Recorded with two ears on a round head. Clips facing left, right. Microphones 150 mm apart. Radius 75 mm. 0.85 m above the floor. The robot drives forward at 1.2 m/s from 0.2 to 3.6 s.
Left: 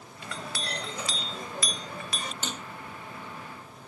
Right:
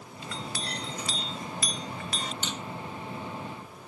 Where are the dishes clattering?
35° left (ahead or behind).